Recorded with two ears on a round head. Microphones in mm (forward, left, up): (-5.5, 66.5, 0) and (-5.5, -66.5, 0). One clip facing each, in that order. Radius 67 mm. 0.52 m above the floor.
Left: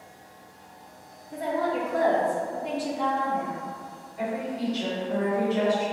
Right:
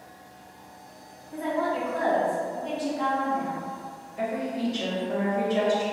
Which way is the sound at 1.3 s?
40° left (ahead or behind).